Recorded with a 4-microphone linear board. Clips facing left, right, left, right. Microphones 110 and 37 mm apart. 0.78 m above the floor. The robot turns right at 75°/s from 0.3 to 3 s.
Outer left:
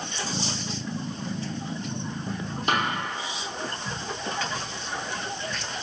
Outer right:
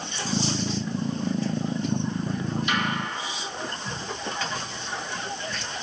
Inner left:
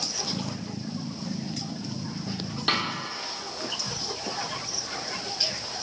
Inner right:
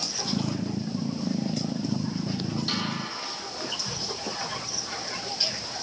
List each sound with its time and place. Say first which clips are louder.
2.7 s a snare drum: outer left 4 dB, inner left 7 dB; 50° left (ahead or behind), 3 m; by 2.9 s 65° left (ahead or behind), 3 m